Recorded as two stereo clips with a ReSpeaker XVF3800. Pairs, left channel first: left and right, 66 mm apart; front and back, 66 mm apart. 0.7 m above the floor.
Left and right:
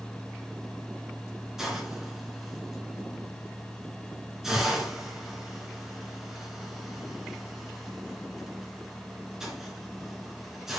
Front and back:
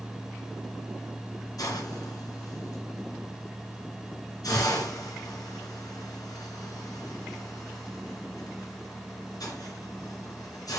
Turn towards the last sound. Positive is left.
turn(degrees=-10)